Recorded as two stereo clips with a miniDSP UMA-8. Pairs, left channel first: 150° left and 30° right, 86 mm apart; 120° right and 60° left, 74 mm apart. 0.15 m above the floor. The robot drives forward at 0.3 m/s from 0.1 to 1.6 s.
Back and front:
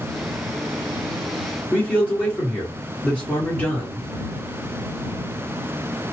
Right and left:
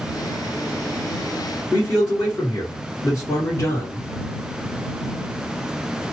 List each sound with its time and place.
1.7 s a man speaking: 140° right, 2 m